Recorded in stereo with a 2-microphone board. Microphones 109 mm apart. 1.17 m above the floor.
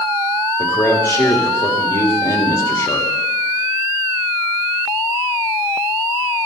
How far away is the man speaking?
About 2 m.